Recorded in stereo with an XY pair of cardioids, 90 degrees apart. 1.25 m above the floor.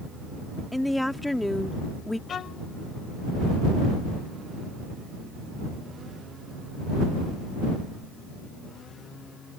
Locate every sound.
0.7 s a woman speaking: 10° left
2.3 s a violin: 60° left